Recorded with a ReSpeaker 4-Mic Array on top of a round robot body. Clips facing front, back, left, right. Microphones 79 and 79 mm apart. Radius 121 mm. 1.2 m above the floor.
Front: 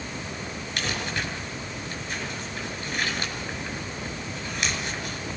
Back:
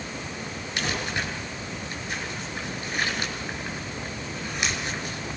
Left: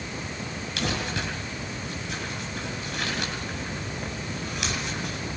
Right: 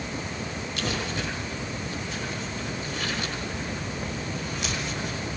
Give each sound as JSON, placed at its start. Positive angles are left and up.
{"t": 0.8, "sound": "crumpling", "azimuth_deg": 95, "distance_m": 7.5}